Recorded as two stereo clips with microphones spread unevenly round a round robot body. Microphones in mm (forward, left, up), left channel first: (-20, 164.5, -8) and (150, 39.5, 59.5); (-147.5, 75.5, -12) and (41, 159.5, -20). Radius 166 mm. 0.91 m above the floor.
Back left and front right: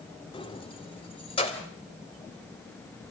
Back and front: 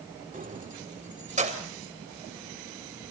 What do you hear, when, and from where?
0.3 s keys jangling: 75° left, 1.7 m; by 1.7 s 80° left, 3.5 m